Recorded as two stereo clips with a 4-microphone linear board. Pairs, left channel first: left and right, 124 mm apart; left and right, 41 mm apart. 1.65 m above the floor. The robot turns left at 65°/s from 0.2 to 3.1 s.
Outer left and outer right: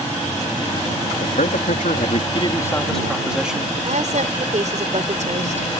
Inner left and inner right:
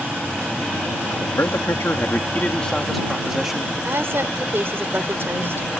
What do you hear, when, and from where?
1.2 s a man speaking: 120° left; by 3.7 s 5° right
3.8 s a woman speaking: 70° right (ahead or behind)